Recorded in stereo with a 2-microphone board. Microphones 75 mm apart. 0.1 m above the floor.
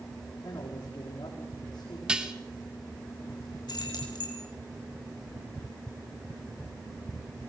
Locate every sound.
0.4 s a man speaking: 70° left (ahead or behind), 5.5 m
2.1 s dishes clattering: 15° right (ahead or behind), 1.5 m
3.7 s keys jangling: 70° left (ahead or behind), 5 m